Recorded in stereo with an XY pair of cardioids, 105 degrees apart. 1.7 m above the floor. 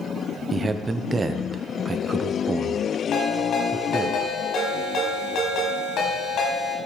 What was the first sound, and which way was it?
A man speaking, 30° right.